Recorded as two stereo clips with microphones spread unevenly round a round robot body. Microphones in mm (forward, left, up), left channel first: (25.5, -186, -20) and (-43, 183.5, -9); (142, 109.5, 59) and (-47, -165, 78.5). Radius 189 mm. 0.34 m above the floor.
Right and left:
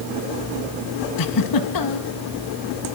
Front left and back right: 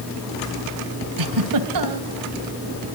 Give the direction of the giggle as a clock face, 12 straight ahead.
4 o'clock.